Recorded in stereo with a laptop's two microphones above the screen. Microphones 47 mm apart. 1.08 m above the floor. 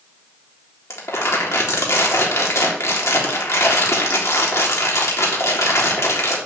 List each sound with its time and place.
0.9 s crumpling: 80° left, 3.5 m